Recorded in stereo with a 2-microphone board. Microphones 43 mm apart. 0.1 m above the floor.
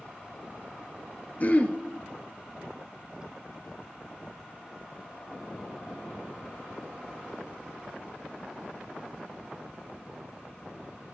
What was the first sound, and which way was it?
Throat clearing, 40° left (ahead or behind).